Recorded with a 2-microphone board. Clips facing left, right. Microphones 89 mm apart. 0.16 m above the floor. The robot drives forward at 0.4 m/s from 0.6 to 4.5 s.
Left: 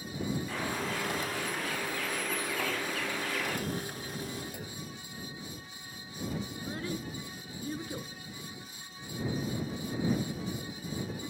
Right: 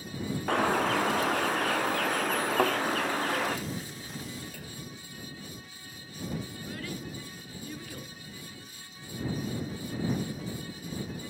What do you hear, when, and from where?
0.5 s a bird: 65° right (ahead or behind), 2.5 m; by 3.6 s 45° right (ahead or behind), 3 m
2.6 s a thud: 50° right (ahead or behind), 2.0 m
4.5 s a clunk: 20° left (ahead or behind), 2.5 m
6.5 s a child speaking: 30° left (ahead or behind), 1.2 m